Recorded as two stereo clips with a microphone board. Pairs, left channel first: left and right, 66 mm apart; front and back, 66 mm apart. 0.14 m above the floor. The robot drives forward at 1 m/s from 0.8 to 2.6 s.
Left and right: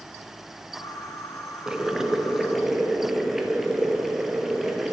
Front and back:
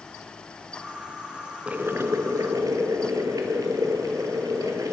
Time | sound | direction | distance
1.7 | boiling | 150° right | 0.5 m